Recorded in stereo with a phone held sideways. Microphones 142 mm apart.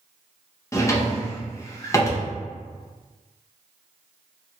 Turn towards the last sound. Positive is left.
turn(degrees=20)  # may be behind; listen again after turning